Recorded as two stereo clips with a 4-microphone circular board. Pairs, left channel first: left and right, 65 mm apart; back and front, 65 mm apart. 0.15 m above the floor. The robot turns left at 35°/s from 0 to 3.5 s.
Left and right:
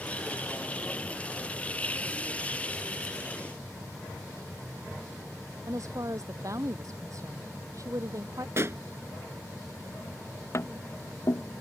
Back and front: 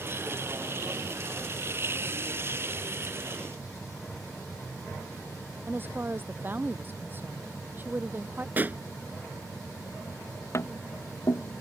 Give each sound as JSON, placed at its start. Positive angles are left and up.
{"t": 5.7, "sound": "a woman speaking", "azimuth_deg": -60}
{"t": 8.6, "sound": "a pop", "azimuth_deg": -55}
{"t": 10.5, "sound": "tapping", "azimuth_deg": 135}